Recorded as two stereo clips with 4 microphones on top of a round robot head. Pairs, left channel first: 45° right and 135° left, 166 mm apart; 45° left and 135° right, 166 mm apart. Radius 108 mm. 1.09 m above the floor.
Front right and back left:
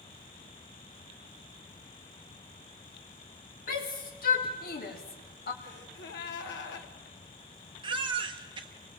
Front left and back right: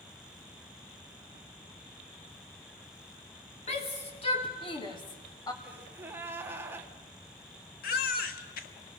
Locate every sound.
3.7 s a shout: 5° right, 3.5 m; by 5.5 s 25° right, 2.5 m
5.6 s a gasp: 60° right, 1.6 m
7.8 s a baby crying: 75° left, 1.1 m